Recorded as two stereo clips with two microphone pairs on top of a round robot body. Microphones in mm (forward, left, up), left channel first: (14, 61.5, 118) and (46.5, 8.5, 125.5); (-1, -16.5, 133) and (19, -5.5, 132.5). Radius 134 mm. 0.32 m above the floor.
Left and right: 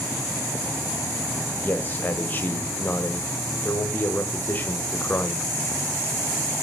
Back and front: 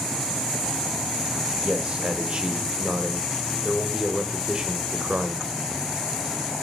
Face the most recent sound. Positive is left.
turn(degrees=70)